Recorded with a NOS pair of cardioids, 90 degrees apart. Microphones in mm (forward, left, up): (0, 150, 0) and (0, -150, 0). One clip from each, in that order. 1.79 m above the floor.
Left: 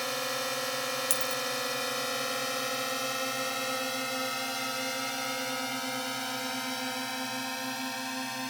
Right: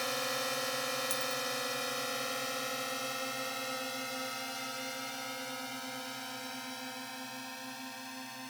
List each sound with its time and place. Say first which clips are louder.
0.0 s a drone: left 2 dB; 20° left; by 8.5 s 70° left
1.1 s a dropped coin: left 4 dB; 70° left